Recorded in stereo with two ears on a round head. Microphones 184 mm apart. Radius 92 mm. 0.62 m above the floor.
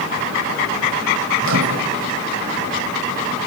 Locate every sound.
1.4 s a microwave: 65° right (ahead or behind), 2.0 m